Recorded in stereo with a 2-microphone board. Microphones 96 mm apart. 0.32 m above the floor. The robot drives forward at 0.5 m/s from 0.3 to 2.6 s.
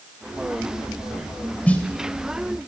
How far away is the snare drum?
About 0.9 m.